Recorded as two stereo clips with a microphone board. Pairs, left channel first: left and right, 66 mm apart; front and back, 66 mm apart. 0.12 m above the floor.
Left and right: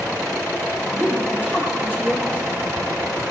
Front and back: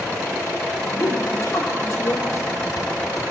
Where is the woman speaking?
25° right, 2.5 m.